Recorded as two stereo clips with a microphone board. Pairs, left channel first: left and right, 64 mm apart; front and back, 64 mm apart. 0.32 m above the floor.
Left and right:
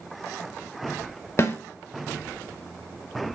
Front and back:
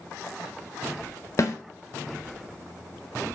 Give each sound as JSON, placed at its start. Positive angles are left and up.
{"t": 1.4, "sound": "a snare drum", "azimuth_deg": 40, "distance_m": 0.7}